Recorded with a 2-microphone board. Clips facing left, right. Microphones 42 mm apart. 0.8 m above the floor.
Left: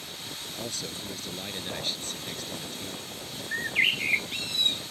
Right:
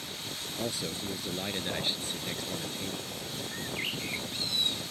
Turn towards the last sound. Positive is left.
turn(degrees=65)  # may be behind; listen again after turning